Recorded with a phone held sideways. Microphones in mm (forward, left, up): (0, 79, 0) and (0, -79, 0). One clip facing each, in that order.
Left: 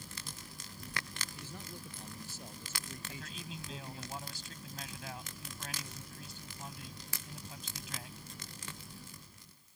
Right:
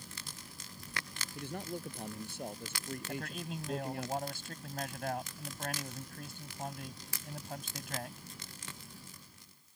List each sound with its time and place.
1.4 s a man speaking: 60° right (ahead or behind); by 4.1 s 65° right (ahead or behind)
3.1 s a man speaking: 60° right (ahead or behind)